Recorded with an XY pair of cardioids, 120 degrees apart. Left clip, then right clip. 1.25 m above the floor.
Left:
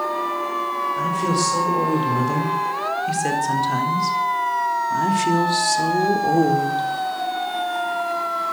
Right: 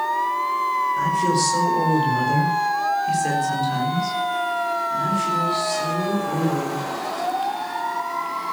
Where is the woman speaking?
Straight ahead, 5.5 m; by 6.9 s 75° left, 4 m.